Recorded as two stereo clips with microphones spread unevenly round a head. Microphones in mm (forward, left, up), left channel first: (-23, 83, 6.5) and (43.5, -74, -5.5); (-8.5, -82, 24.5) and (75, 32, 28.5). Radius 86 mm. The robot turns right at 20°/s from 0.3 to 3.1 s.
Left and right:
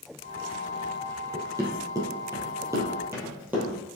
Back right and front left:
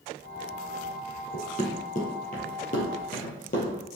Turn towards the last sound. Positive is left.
turn(degrees=-155)